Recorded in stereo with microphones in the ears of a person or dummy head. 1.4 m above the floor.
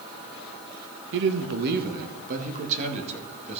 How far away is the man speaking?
About 0.9 m.